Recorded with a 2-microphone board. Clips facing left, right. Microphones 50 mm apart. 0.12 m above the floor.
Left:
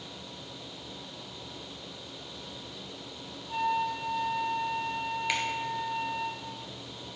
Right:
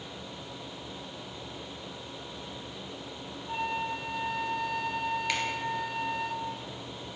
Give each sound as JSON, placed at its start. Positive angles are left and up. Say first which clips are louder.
{"t": 3.5, "sound": "a flute", "louder": "left 3 dB", "side_deg": -80, "distance_m": 4.5}
{"t": 5.3, "sound": "a finger snap", "louder": "left 3 dB", "side_deg": 10, "distance_m": 2.5}